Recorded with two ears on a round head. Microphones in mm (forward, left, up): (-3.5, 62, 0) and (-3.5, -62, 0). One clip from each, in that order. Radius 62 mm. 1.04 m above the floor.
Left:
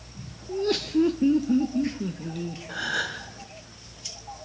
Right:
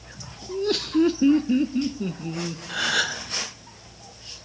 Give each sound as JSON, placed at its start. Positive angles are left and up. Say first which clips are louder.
{"t": 0.5, "sound": "laughter", "louder": "right 1 dB", "side_deg": 5, "distance_m": 1.0}
{"t": 2.7, "sound": "a gasp", "louder": "right 5 dB", "side_deg": -60, "distance_m": 2.0}